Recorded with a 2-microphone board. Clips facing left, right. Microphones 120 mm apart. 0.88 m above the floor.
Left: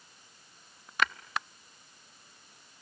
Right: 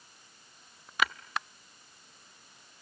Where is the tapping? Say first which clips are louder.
Even; 5° right (ahead or behind), 0.6 m.